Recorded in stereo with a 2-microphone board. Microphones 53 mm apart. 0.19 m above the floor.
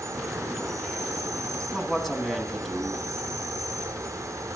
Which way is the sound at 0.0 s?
65° right (ahead or behind).